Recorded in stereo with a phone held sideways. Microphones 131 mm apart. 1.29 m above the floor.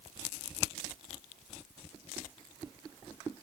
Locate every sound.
Only background noise.